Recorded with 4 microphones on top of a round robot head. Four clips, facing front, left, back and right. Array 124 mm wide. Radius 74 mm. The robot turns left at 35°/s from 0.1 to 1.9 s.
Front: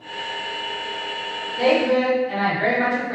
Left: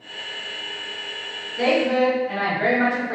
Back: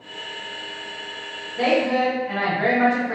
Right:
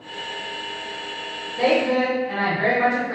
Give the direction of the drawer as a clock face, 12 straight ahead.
I don't hear a drawer.